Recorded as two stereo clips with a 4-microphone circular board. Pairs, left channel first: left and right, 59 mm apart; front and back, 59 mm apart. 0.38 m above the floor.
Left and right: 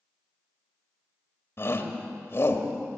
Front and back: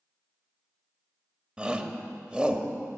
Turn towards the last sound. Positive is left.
turn(degrees=115)